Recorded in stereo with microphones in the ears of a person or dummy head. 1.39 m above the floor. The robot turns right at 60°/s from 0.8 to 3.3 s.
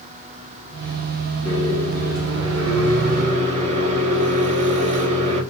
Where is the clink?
I don't hear a clink.